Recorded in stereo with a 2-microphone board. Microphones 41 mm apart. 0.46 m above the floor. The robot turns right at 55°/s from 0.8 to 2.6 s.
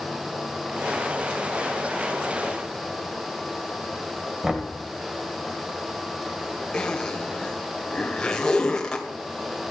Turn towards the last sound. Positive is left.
turn(degrees=20)  # may be behind; listen again after turning